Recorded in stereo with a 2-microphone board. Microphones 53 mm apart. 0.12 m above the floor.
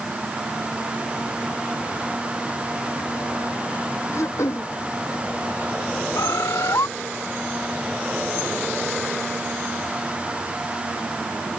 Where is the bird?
80° left.